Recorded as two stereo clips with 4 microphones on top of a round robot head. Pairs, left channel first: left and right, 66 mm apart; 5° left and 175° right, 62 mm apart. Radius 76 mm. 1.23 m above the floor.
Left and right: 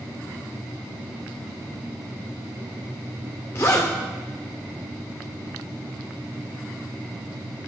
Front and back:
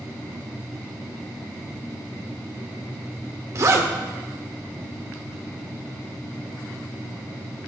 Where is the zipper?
145° left, 2.0 m.